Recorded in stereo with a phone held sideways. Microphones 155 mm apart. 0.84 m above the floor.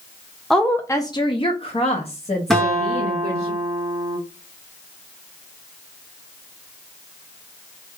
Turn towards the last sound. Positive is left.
turn(degrees=0)  # may be behind; listen again after turning